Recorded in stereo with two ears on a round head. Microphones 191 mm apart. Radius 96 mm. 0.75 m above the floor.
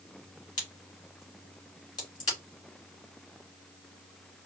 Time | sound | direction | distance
0.6 | a crack | 20° left (ahead or behind) | 2.5 m